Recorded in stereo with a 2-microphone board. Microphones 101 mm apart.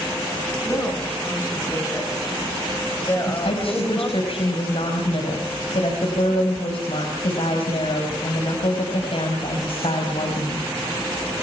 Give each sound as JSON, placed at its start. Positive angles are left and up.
{"t": 0.7, "sound": "a woman speaking", "side_deg": 30, "distance_m": 9.5}
{"t": 3.3, "sound": "a woman speaking", "side_deg": 70, "distance_m": 4.5}